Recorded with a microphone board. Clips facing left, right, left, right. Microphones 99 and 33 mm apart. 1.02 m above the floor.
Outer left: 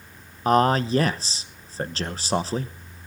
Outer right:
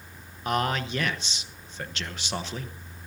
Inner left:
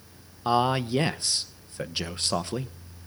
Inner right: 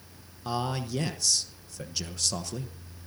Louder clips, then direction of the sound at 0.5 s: Outer left 8 dB, inner left 8 dB; 35° left (ahead or behind).